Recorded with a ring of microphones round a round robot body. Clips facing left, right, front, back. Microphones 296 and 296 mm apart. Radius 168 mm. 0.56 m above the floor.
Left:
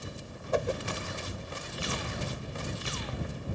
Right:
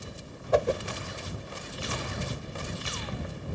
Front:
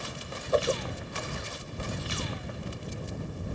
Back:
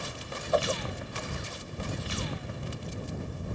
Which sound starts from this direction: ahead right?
A whoosh, at 0.5 s.